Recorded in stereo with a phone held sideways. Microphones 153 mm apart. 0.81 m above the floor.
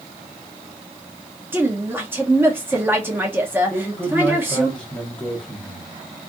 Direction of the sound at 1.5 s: 15° right (ahead or behind).